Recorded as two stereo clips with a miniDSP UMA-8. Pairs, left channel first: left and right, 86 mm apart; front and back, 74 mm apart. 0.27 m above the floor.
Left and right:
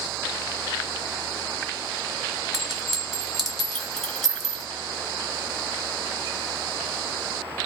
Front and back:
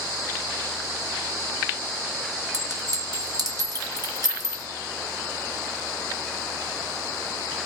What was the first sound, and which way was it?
A clink, 175° left.